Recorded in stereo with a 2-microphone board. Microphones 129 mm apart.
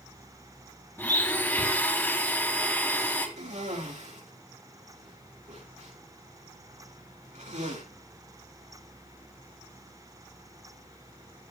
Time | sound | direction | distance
1.0 | a blender | 15° left (ahead or behind) | 3.5 m
3.4 | a cough | 70° right (ahead or behind) | 6 m